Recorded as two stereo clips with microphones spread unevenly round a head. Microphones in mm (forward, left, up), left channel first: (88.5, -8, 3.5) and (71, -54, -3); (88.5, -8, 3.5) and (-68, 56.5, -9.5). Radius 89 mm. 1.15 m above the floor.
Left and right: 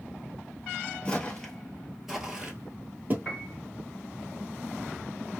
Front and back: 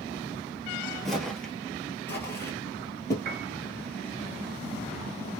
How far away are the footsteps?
About 1.2 m.